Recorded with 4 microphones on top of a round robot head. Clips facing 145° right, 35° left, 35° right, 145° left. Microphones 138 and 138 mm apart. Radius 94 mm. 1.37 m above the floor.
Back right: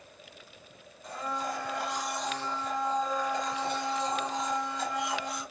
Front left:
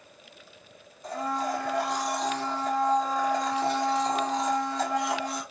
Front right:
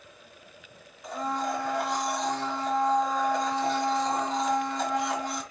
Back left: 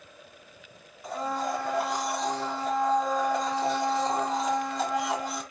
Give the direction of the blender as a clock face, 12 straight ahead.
10 o'clock.